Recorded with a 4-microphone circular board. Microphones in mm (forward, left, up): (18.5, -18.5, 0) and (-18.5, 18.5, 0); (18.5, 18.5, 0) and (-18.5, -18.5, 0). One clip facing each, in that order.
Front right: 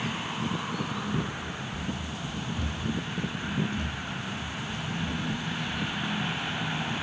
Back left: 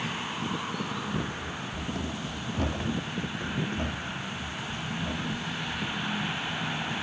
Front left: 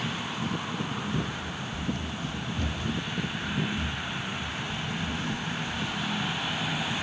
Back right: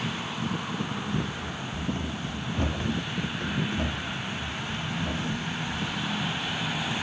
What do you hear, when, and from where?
1.1 s running footsteps: 145° left; by 6.9 s 155° right